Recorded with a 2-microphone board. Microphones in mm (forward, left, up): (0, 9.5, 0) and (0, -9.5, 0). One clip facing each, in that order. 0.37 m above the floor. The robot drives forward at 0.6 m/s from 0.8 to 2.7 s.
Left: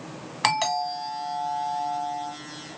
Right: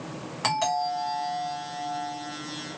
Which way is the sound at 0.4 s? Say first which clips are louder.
Left 2 dB; 35° left (ahead or behind).